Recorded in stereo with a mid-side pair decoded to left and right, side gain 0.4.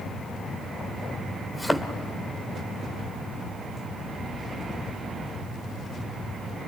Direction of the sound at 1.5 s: 10° left.